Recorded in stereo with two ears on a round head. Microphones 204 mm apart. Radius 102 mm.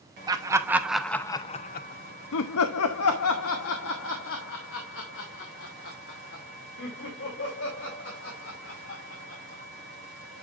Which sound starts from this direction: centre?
Laughter, at 0.3 s.